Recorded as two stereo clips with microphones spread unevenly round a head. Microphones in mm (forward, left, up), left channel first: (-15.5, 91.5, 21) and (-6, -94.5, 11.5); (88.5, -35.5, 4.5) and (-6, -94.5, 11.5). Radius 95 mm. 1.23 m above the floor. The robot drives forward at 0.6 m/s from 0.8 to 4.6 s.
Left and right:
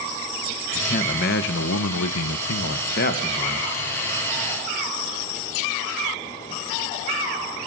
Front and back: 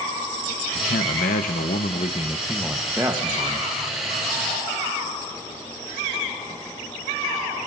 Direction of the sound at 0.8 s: 35° left.